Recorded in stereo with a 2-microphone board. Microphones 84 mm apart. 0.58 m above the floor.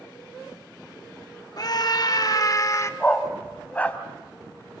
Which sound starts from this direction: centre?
A dog barking, at 3.0 s.